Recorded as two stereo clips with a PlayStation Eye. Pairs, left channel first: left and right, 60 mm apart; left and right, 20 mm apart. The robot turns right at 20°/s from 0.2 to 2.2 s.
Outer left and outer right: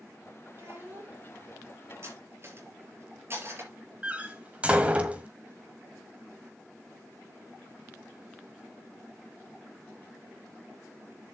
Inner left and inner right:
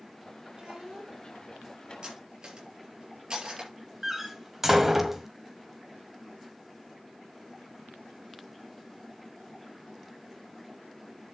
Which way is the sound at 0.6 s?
50° right (ahead or behind).